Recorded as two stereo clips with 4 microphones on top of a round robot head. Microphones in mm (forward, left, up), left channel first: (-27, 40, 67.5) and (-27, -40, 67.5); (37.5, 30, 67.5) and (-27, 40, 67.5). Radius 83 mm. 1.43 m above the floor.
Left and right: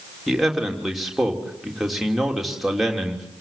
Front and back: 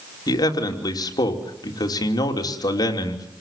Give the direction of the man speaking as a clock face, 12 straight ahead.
12 o'clock.